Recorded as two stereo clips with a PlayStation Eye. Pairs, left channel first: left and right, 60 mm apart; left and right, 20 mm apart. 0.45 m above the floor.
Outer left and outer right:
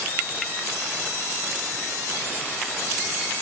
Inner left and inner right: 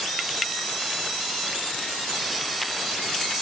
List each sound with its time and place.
Only background noise.